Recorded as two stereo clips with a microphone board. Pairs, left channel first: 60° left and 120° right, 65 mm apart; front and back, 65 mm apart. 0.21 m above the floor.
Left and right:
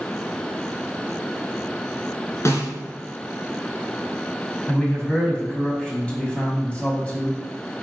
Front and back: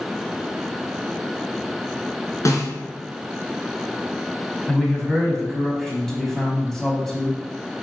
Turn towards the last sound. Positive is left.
turn(degrees=75)